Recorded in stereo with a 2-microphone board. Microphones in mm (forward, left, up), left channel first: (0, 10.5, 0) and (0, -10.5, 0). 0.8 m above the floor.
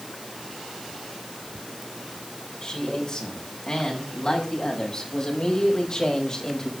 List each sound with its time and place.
2.6 s a man speaking: 30° left (ahead or behind), 8 m